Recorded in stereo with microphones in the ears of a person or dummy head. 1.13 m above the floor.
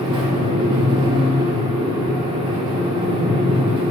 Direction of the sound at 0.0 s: 25° right (ahead or behind).